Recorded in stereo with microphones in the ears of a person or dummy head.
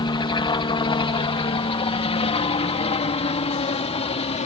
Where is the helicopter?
20° left (ahead or behind); by 4.5 s 30° left (ahead or behind).